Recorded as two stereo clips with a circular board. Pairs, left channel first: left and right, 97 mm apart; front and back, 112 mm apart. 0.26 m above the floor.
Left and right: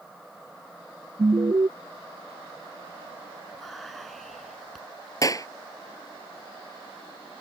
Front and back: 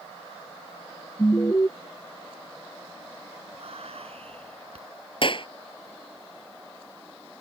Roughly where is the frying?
No frying in this recording.